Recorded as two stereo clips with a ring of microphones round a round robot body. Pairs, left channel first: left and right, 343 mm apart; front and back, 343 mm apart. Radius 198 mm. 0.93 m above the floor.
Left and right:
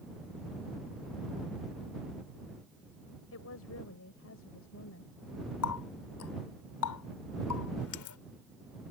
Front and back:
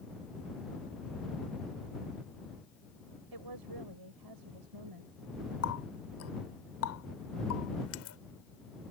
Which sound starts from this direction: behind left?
A woman speaking, at 3.3 s.